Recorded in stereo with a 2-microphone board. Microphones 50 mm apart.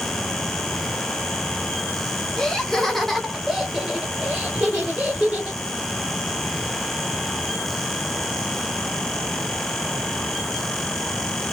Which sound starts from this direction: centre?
Laughter, at 2.4 s.